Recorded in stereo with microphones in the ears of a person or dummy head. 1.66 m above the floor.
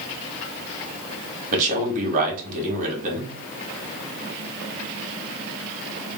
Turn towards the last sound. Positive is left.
turn(degrees=-45)  # may be behind; listen again after turning